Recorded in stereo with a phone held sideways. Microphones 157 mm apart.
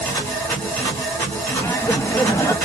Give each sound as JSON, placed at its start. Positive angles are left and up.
{"t": 0.0, "sound": "a machine running", "side_deg": 15, "distance_m": 1.4}
{"t": 1.6, "sound": "laughter", "side_deg": 20, "distance_m": 0.6}